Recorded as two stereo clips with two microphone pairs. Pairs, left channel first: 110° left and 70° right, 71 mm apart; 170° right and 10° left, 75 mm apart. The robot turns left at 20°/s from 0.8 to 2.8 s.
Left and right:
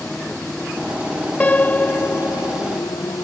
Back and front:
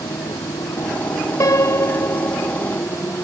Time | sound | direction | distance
0.0 | a motorcycle | straight behind | ?
1.4 | a piano | 170° left | ?